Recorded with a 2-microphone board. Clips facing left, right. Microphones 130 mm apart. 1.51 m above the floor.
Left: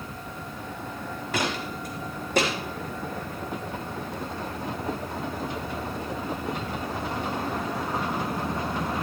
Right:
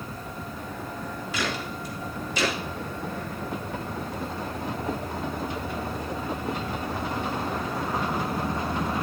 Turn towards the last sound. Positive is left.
turn(degrees=60)  # may be behind; listen again after turning